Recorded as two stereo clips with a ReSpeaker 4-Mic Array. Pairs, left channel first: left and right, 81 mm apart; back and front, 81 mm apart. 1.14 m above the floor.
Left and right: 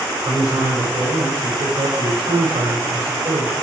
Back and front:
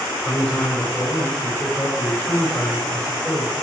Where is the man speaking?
110° right, 5.5 m.